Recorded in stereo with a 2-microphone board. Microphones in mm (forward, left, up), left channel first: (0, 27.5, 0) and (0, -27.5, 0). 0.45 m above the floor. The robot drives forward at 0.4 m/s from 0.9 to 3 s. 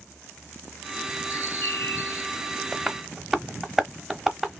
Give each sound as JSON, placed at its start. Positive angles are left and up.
{"t": 1.3, "sound": "a bird", "side_deg": 55, "distance_m": 0.8}
{"t": 2.7, "sound": "tapping", "side_deg": -5, "distance_m": 0.7}